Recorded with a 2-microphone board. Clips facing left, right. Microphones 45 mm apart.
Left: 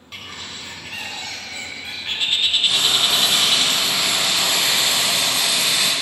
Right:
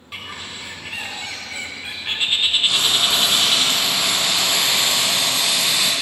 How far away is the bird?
About 0.5 m.